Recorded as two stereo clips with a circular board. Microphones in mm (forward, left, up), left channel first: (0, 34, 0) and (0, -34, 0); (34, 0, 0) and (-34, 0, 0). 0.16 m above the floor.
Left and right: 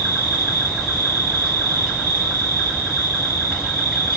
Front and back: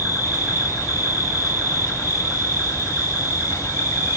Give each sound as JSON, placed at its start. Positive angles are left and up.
{"t": 0.0, "sound": "an insect", "azimuth_deg": -20, "distance_m": 1.6}